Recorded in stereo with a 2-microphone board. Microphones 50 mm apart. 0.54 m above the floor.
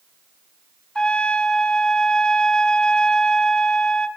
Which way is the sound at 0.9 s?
20° left (ahead or behind).